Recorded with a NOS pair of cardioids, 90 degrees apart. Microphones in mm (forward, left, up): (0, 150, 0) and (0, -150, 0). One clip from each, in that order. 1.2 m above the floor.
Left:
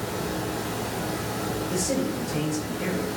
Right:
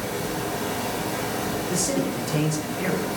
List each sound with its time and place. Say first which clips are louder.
0.0 s a fan: right 2 dB; 45° right, 1.0 m
1.7 s a man speaking: right 1 dB; 70° right, 1.0 m